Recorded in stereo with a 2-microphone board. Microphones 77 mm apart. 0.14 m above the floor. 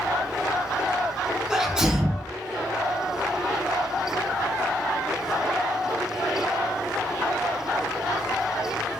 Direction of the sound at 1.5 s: 10° right (ahead or behind).